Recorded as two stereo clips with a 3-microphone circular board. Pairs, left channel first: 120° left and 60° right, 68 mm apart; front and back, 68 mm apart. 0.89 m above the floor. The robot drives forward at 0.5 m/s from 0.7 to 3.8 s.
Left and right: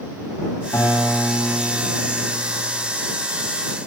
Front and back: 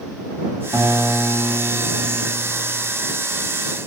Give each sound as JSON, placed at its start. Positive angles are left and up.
{"t": 0.7, "sound": "a guitar", "azimuth_deg": 170, "distance_m": 7.0}